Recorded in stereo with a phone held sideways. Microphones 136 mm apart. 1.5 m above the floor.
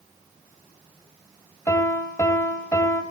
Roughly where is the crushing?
No crushing in this recording.